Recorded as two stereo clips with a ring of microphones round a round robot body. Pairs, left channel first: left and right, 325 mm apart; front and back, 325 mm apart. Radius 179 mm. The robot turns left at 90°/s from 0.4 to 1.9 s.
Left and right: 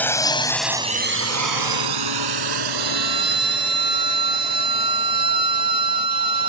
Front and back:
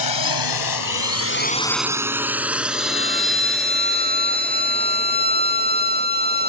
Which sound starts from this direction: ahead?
A drone, at 0.0 s.